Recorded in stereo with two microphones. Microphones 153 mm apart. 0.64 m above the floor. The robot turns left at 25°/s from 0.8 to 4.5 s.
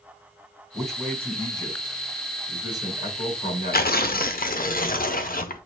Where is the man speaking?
Straight behind, 4 m; by 4.7 s 85° left, 4 m.